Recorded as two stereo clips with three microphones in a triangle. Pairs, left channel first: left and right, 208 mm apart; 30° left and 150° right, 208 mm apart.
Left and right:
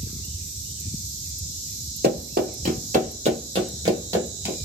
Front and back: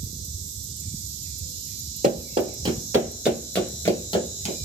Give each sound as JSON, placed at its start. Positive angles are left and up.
{"t": 2.0, "sound": "running footsteps", "azimuth_deg": -105, "distance_m": 1.5}